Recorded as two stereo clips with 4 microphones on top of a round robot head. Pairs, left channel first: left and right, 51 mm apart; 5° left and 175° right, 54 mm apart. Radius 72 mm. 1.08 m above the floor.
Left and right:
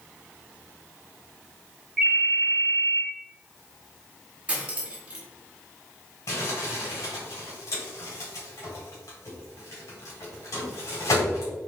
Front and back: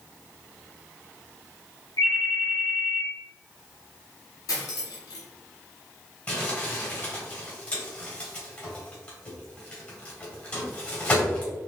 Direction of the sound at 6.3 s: 65° left.